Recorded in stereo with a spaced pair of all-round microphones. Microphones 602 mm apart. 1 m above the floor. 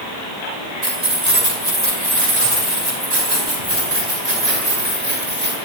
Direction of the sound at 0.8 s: 80° right.